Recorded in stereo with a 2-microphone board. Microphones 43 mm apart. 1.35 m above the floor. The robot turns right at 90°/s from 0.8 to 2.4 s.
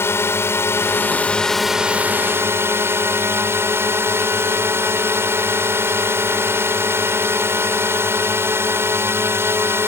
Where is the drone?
110° left; by 9.9 s 105° right.